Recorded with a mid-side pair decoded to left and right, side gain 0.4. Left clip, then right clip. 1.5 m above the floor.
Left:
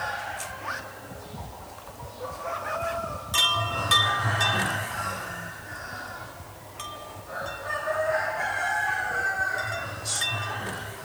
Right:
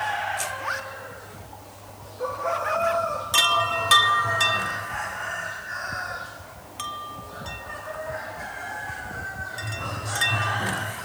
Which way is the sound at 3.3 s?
40° right.